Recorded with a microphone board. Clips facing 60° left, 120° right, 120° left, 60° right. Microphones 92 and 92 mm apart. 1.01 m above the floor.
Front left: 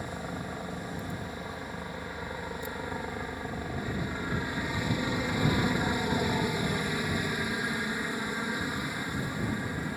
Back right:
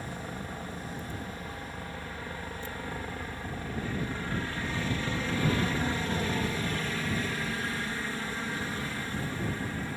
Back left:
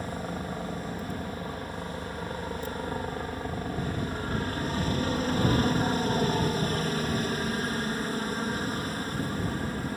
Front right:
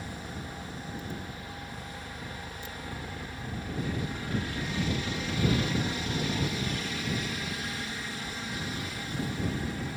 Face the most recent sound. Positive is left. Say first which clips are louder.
# front left 2 dB, back left 6 dB
turn(degrees=130)